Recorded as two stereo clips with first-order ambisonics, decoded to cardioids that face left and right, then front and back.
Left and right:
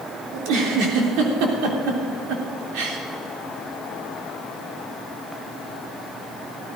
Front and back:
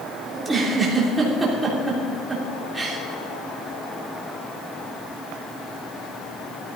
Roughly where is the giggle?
Right.